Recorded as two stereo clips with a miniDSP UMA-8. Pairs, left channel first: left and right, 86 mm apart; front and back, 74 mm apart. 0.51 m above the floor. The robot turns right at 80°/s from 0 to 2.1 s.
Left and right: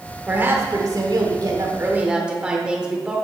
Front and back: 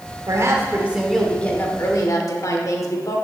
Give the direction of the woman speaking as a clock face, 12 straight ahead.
5 o'clock.